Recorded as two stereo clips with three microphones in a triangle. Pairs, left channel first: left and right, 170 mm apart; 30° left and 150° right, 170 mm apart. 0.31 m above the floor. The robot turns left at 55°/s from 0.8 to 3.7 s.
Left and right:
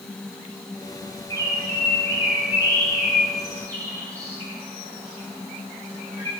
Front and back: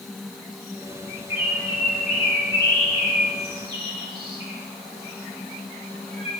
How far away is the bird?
About 4 m.